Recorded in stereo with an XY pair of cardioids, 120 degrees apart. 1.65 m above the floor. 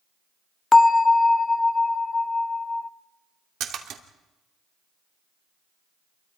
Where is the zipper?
No zipper in this recording.